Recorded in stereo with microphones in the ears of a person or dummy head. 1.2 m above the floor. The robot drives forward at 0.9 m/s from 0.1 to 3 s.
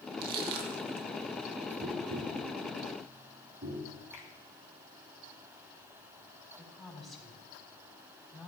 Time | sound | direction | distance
0.2 | crushing | 45° right (ahead or behind) | 2 m
1.8 | tapping | 75° right (ahead or behind) | 3 m
4.1 | a finger snap | 50° left (ahead or behind) | 2.5 m
6.6 | a woman speaking | 5° left (ahead or behind) | 3 m